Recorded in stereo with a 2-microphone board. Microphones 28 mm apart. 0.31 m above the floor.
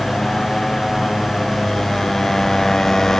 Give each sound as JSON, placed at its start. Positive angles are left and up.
{"t": 0.0, "sound": "a motorcycle", "side_deg": 20}